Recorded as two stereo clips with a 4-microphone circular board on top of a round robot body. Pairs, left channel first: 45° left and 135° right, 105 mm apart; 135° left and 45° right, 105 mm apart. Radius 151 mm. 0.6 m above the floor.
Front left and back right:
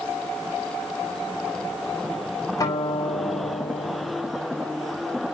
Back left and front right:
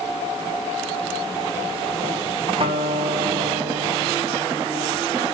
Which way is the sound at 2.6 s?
10° right.